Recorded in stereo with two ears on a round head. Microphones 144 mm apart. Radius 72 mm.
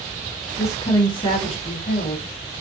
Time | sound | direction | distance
0.6 | a woman speaking | 15° left (ahead or behind) | 1.0 m